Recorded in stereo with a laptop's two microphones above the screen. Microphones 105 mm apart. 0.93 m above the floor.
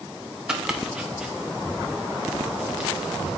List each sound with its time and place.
0.5 s chopping: 5° right (ahead or behind), 1.0 m